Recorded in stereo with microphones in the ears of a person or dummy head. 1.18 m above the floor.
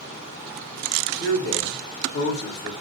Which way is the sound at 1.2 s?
55° left (ahead or behind).